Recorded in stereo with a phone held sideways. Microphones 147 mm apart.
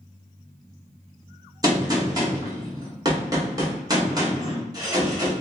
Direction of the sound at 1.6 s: 25° right (ahead or behind).